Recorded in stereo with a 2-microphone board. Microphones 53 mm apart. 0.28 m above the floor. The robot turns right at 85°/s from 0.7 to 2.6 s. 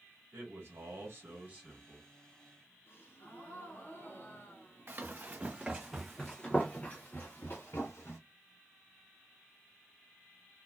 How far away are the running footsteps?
About 1.2 m.